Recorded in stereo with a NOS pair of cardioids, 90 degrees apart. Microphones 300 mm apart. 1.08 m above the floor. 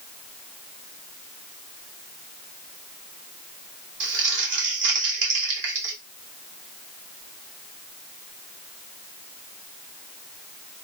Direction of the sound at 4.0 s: 45° right.